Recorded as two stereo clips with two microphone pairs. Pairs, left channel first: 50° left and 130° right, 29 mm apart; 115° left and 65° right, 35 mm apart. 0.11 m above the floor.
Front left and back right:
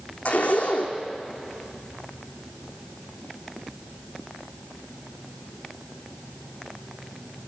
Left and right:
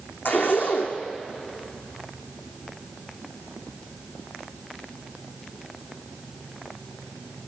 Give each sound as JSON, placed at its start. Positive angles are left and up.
{"t": 0.2, "sound": "a zipper", "azimuth_deg": 90, "distance_m": 3.0}